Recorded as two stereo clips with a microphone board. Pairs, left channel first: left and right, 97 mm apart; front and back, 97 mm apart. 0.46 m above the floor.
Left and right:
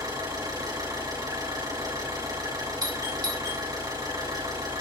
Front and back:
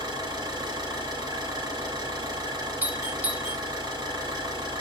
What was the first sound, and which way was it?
An engine running, 135° right.